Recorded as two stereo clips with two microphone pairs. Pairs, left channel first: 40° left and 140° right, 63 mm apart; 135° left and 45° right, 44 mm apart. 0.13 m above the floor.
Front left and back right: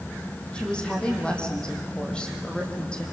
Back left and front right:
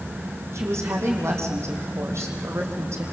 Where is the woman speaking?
35° right, 5 m.